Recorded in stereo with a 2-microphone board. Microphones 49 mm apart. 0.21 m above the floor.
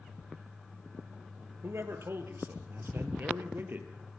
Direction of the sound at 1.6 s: 60° right (ahead or behind).